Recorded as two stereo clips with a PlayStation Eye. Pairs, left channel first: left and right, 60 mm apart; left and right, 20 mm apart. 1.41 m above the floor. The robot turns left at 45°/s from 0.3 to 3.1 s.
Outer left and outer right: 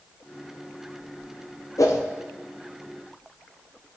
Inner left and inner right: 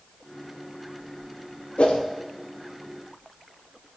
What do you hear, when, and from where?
1.8 s a whoosh: 80° left, 0.6 m; by 2.0 s 75° left (ahead or behind), 0.6 m